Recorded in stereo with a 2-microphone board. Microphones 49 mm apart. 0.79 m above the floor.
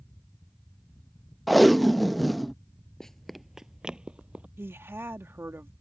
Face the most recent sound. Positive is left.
turn(degrees=-55)  # may be behind; listen again after turning